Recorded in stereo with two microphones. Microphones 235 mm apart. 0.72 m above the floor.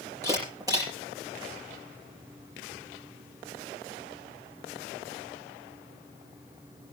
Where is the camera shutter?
15° right (ahead or behind), 7.5 m.